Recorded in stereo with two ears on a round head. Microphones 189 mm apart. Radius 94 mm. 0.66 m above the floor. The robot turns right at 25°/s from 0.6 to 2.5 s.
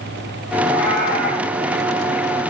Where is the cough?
No cough in this recording.